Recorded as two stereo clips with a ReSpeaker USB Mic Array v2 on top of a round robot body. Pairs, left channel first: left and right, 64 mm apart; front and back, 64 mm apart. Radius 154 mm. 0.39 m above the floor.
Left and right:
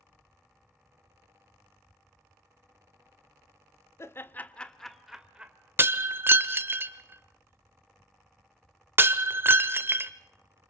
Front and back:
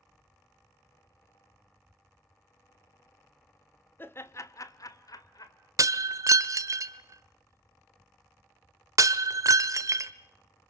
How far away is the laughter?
About 1.6 m.